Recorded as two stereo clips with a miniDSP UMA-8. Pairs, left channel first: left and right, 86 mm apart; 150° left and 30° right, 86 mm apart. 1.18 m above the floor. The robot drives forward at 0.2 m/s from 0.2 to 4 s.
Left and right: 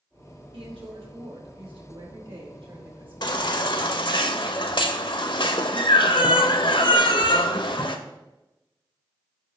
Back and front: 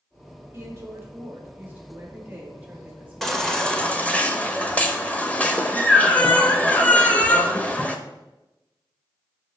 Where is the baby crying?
65° left, 0.7 m; by 8.0 s 75° left, 0.6 m.